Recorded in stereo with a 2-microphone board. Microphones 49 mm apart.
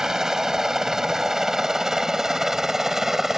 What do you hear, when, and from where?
0.0 s a helicopter: 10° right (ahead or behind); by 3.4 s 5° right (ahead or behind)